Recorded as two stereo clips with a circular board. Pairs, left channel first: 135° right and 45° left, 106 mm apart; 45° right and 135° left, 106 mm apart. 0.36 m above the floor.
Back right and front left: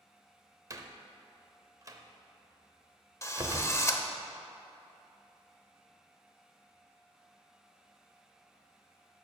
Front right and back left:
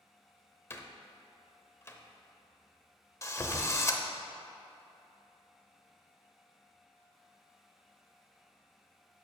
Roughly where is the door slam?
Ahead.